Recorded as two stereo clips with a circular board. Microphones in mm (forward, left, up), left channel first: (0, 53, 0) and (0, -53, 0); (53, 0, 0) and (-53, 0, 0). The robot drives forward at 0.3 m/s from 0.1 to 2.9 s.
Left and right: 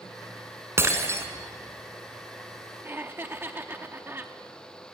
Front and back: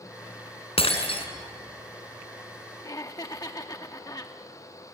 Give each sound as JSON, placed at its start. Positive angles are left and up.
{"t": 0.8, "sound": "breaking glass", "azimuth_deg": -25, "distance_m": 2.5}
{"t": 2.8, "sound": "laughter", "azimuth_deg": -30, "distance_m": 0.7}